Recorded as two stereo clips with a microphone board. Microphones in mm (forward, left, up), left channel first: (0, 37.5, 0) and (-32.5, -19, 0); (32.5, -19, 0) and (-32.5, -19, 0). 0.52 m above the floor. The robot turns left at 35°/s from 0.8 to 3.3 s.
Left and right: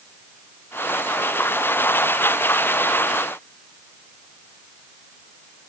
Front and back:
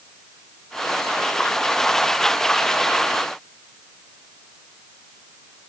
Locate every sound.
Only background noise.